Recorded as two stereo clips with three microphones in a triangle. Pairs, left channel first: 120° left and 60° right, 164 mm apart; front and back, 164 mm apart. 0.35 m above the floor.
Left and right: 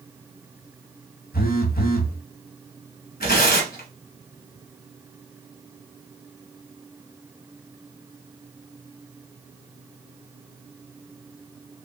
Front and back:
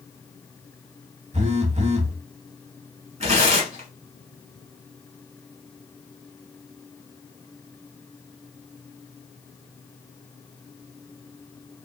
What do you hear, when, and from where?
1.3 s a phone buzzing: 140° left, 0.7 m
3.2 s tearing paper: 135° left, 1.9 m